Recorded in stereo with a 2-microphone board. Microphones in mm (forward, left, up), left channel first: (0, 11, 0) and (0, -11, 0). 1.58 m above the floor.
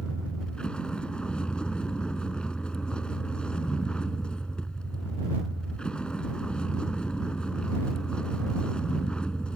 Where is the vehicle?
45° left (ahead or behind).